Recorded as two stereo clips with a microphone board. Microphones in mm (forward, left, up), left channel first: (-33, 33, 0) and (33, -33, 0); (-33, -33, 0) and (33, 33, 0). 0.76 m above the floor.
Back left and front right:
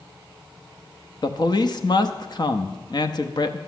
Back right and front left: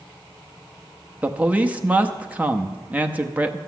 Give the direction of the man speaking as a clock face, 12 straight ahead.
8 o'clock.